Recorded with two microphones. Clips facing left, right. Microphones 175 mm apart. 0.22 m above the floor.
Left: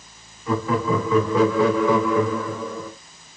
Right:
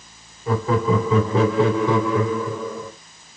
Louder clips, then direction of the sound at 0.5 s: Right 2 dB; 30° right (ahead or behind).